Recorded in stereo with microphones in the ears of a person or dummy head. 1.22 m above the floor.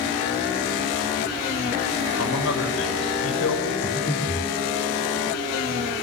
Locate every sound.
2.2 s a man speaking: 85° left, 7 m
3.8 s breathing: 25° left (ahead or behind), 3.5 m